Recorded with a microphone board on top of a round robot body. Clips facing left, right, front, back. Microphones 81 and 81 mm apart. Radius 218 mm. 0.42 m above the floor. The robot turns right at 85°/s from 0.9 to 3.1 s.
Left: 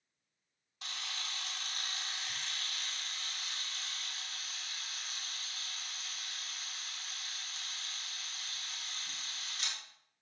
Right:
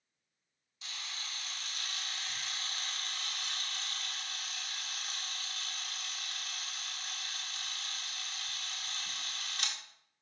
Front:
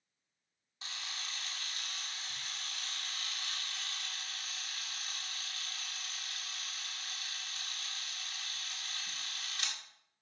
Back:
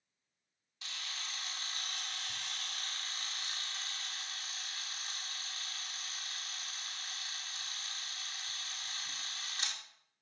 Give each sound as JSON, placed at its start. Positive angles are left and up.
{"t": 0.8, "sound": "a camera shutter", "azimuth_deg": 55, "distance_m": 2.0}